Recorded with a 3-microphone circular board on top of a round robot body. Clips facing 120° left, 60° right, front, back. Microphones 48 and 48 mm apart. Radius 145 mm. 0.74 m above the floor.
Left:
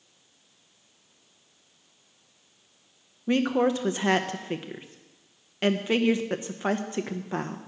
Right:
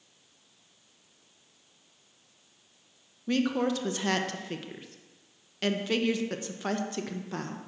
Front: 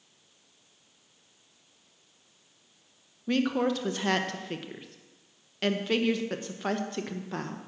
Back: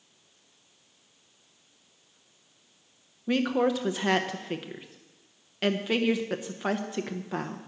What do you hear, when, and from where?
3.3 s a woman speaking: 110° left, 0.9 m